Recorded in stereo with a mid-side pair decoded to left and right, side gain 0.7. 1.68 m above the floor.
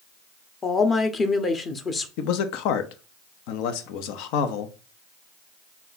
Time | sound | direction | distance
0.6 | a woman speaking | 30° left | 0.9 m
2.2 | a man speaking | 70° left | 0.7 m